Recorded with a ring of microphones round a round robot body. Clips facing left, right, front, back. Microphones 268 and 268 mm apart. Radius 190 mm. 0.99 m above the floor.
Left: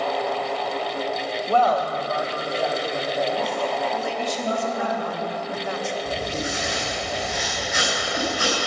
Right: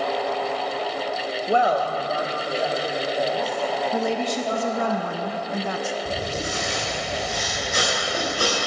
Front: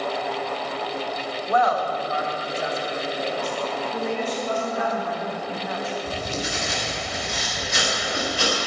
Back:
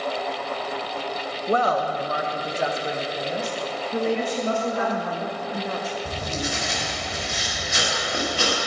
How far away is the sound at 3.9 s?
About 0.6 m.